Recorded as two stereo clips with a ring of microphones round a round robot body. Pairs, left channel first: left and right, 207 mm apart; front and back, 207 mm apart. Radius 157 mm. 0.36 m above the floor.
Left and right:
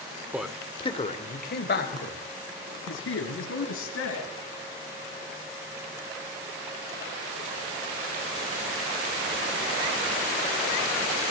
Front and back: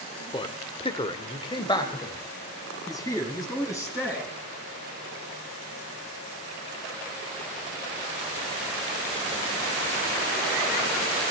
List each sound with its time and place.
0.3 s a man speaking: 20° right, 1.2 m; by 4.3 s 75° left, 4.5 m